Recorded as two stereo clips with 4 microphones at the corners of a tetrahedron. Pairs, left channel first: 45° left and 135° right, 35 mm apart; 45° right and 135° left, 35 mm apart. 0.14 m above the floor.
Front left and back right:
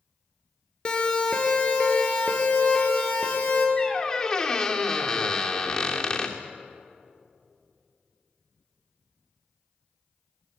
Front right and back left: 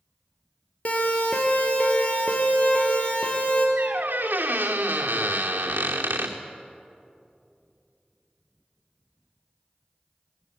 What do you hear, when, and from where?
0.8 s a siren: 15° right, 3 m; by 3.7 s straight ahead, 4.5 m
3.8 s a squeak: 110° left, 3 m